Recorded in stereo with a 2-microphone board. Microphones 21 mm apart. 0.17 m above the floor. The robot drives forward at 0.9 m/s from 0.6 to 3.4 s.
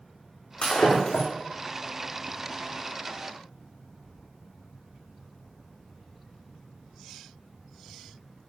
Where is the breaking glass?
60° left (ahead or behind), 5 m; by 1.3 s 55° left (ahead or behind), 5.5 m.